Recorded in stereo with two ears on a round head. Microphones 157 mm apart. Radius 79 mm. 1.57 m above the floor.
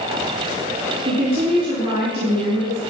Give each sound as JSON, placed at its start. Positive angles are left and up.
{"t": 1.1, "sound": "a woman speaking", "side_deg": -40, "distance_m": 3.5}